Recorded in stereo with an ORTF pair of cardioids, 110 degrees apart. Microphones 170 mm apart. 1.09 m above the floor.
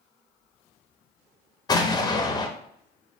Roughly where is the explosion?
Ahead left.